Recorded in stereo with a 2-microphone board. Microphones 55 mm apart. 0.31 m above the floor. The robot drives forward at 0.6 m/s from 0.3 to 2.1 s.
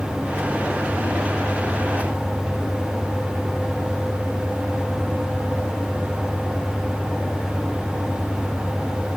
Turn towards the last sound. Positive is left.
No sound to turn to.